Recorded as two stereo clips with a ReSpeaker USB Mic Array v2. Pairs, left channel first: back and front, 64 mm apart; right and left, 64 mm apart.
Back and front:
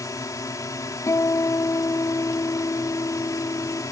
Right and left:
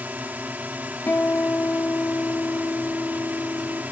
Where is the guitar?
150° right.